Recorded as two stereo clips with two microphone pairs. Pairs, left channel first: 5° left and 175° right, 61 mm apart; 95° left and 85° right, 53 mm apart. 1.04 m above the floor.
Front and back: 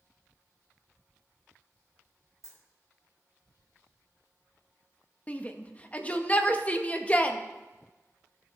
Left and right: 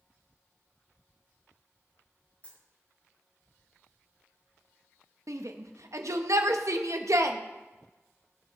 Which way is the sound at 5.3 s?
65° right.